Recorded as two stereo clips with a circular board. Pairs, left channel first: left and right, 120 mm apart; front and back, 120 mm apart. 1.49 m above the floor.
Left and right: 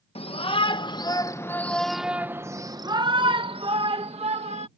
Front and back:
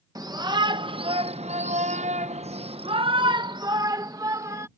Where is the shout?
125° left; by 4.7 s 115° right.